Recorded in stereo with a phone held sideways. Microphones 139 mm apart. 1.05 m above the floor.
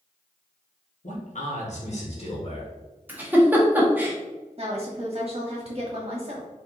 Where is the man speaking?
65° left (ahead or behind), 1.4 m; by 2.7 s 45° left (ahead or behind), 1.7 m.